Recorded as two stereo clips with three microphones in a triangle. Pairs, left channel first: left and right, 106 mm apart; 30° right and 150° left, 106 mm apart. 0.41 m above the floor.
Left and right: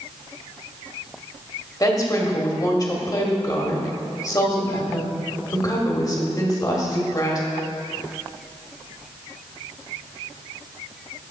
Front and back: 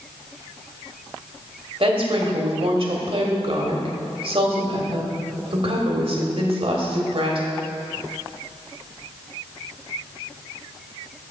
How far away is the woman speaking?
About 1.4 m.